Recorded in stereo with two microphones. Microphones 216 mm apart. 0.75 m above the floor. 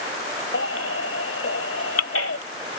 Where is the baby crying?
85° left.